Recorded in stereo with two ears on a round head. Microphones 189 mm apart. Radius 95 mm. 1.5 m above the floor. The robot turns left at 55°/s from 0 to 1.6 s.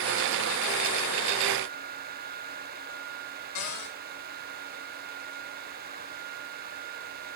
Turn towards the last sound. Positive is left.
turn(degrees=80)